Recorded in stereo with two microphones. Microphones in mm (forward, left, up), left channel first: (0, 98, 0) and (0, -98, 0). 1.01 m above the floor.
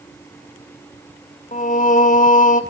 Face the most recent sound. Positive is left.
turn(degrees=40)  # may be behind; listen again after turning